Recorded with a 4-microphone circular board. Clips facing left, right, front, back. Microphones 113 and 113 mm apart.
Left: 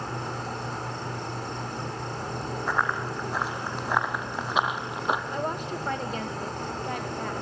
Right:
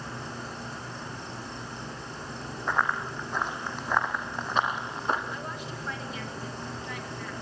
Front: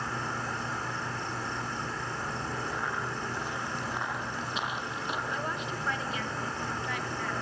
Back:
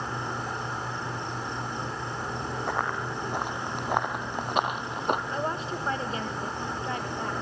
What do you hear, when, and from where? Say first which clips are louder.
0.0 s an insect: left 5 dB, back 2 dB; 110° left, 4.5 m
2.7 s running footsteps: even, back 4 dB; 175° left, 3.5 m; by 5.2 s 165° left, 2 m
5.3 s a woman speaking: left 7 dB, back 4 dB; 125° left, 1.9 m